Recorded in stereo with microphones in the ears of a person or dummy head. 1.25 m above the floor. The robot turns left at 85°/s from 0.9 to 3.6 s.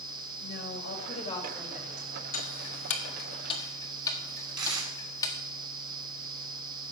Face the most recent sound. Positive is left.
turn(degrees=-20)  # may be behind; listen again after turning